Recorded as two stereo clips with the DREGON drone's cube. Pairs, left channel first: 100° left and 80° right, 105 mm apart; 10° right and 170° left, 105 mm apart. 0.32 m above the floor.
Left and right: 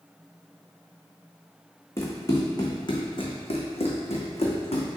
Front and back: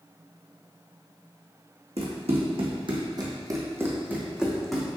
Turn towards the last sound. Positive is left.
turn(degrees=80)